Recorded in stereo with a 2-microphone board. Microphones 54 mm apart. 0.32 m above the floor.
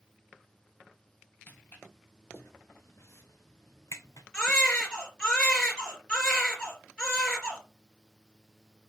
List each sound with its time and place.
1.5 s footsteps: 35° left (ahead or behind), 3.5 m; by 4.2 s 75° left (ahead or behind), 1.1 m
4.3 s a baby crying: 15° left (ahead or behind), 2.5 m